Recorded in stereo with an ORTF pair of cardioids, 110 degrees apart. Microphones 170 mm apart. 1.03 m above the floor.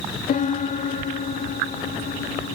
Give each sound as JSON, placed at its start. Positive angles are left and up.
{"t": 0.3, "sound": "a piano", "azimuth_deg": 50, "distance_m": 0.9}